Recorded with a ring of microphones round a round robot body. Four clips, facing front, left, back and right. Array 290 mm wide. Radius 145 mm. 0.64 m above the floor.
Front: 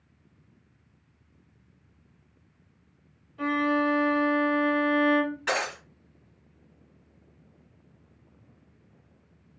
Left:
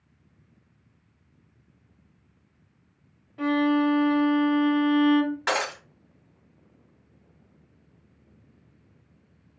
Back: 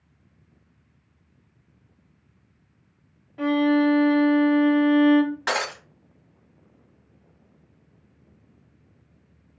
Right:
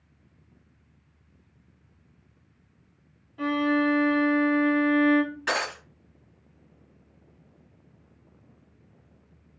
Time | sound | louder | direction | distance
3.4 | a violin | left 2 dB, back 6 dB | 160° left | 1.4 m
5.5 | breaking glass | left 2 dB, back 2 dB | 135° left | 1.3 m